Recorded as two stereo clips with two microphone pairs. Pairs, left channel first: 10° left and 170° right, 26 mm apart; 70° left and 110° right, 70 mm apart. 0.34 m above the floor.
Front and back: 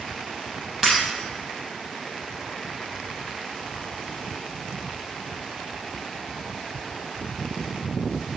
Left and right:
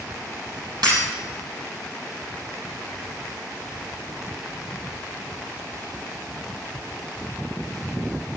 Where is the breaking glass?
85° right, 5.5 m.